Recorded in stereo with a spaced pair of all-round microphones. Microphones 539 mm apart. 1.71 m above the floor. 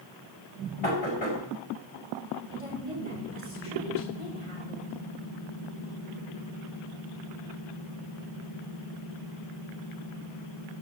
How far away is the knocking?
About 5 m.